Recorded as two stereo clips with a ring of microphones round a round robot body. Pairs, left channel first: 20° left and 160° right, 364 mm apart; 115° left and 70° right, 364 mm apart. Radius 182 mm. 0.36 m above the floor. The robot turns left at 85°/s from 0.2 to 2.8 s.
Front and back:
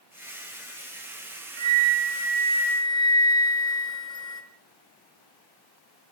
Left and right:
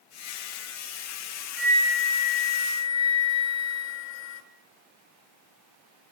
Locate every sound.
1.6 s a flute: 155° right, 5 m; by 4.4 s 100° left, 5 m